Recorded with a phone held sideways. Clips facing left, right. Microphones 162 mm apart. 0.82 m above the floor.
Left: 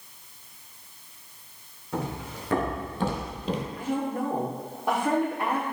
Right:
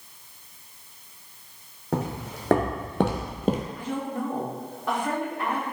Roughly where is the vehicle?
No vehicle in this recording.